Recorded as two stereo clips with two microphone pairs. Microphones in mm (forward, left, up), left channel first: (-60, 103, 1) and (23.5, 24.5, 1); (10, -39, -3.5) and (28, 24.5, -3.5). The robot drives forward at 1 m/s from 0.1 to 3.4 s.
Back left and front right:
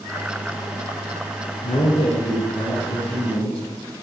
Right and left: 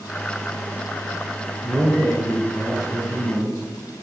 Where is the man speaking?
155° left, 1.9 m; by 3.6 s 165° left, 3.5 m.